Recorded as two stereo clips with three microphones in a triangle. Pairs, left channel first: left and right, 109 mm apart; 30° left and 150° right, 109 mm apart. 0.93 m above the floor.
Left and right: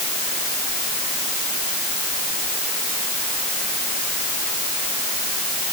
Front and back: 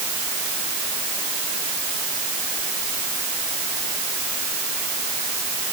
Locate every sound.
Only background noise.